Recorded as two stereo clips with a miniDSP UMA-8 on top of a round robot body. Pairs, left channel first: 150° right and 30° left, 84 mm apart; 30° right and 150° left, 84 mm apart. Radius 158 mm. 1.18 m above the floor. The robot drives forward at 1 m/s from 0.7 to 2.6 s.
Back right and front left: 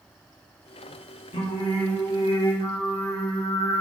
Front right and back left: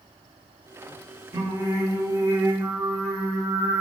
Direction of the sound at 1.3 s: 150° right.